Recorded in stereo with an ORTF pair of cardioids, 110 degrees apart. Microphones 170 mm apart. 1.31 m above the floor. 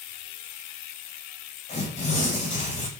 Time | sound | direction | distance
1.7 | tearing paper | 45° left | 4.5 m